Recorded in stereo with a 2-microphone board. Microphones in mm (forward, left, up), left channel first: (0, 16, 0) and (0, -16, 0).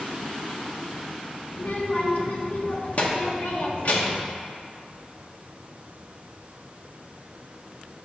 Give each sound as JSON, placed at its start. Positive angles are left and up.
{"t": 1.5, "sound": "a child speaking", "side_deg": 55, "distance_m": 1.4}